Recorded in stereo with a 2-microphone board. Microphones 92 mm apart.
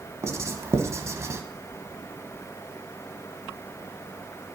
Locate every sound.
0.2 s writing: 35° right (ahead or behind), 0.8 m